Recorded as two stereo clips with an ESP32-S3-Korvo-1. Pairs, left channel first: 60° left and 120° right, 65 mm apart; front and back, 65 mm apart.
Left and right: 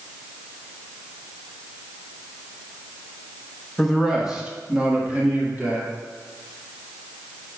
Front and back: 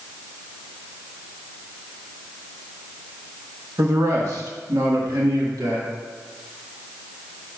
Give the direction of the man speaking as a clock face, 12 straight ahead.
7 o'clock.